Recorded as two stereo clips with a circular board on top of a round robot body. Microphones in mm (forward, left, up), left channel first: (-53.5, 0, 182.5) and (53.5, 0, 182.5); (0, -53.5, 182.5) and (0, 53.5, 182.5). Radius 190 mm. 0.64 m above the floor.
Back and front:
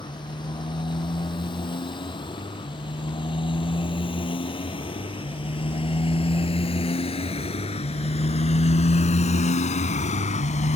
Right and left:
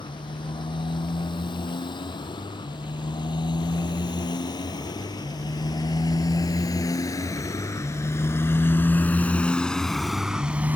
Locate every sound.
0.0 s a motorcycle: 135° right; by 10.8 s 165° left